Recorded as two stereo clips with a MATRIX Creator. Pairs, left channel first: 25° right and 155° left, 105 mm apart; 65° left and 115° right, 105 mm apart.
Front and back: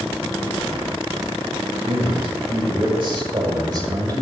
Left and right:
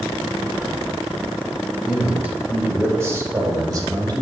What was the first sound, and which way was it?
A man speaking, 165° left.